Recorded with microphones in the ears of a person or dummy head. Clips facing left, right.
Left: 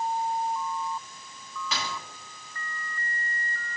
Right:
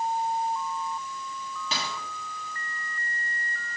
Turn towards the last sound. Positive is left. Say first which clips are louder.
# even
turn(degrees=-25)  # may be behind; listen again after turning